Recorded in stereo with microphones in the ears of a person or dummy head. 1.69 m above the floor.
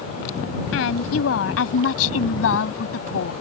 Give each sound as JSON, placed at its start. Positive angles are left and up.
{"t": 0.7, "sound": "a woman speaking", "side_deg": 90}